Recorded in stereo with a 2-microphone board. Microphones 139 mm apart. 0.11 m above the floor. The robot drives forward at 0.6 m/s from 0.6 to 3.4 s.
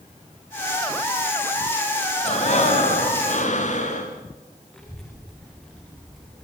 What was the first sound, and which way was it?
Breathing, 50° left (ahead or behind).